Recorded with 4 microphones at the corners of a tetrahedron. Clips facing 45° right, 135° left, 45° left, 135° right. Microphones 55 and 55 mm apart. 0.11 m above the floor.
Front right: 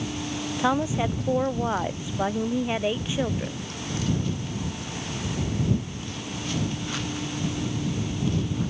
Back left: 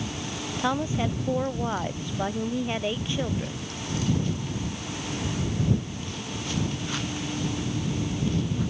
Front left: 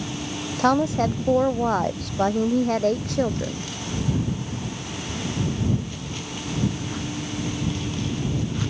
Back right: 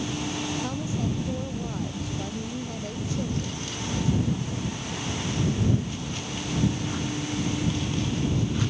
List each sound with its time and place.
0.6 s a woman speaking: 35° left